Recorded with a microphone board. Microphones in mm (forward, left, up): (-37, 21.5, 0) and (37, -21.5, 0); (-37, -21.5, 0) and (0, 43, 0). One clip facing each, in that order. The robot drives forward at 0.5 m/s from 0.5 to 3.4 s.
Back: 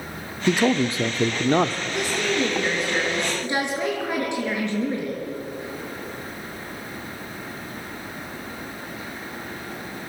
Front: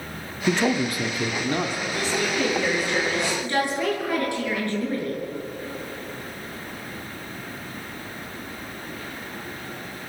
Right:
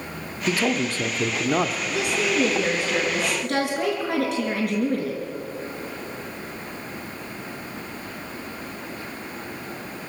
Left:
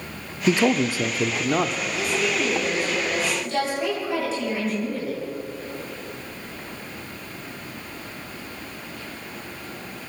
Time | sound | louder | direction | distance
0.5 | a man speaking | back 2 dB, left 4 dB | 80° left | 0.7 m
1.9 | a woman speaking | back 1 dB, right 1 dB | 135° right | 6 m